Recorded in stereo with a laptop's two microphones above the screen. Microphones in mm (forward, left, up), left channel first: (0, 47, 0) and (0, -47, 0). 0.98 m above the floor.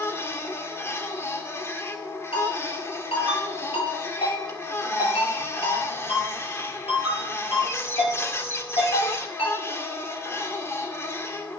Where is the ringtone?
85° left, 8 m.